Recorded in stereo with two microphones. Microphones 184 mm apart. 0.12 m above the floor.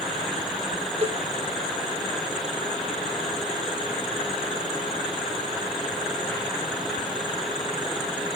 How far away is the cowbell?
About 0.7 m.